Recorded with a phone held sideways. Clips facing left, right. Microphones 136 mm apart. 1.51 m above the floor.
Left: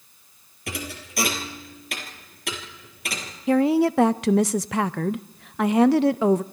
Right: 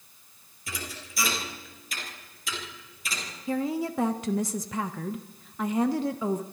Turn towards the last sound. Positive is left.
turn(degrees=75)  # may be behind; listen again after turning